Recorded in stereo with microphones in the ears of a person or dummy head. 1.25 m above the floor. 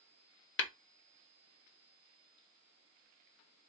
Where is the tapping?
55° left (ahead or behind), 0.8 m.